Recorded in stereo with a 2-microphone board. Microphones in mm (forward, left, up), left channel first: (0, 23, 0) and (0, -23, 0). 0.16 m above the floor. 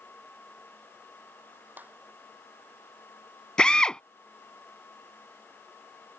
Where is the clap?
40° right (ahead or behind).